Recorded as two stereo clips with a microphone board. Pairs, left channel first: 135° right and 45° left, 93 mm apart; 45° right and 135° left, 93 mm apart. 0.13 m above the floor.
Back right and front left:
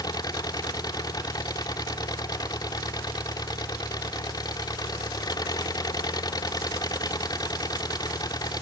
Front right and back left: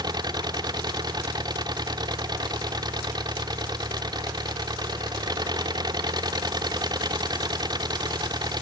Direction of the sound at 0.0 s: Straight behind.